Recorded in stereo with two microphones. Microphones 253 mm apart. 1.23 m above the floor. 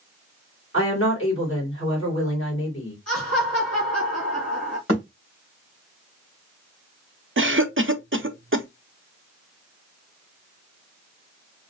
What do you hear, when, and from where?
0.7 s a woman speaking: 55° left (ahead or behind), 2.5 m
3.1 s laughter: 75° left (ahead or behind), 1.6 m
4.9 s a thud: 60° left (ahead or behind), 2.5 m
7.4 s a cough: 50° right (ahead or behind), 0.5 m